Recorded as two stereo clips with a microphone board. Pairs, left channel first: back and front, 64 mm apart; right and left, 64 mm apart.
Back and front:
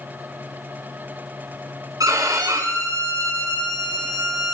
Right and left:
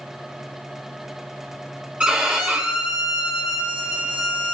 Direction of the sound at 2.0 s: 20° left.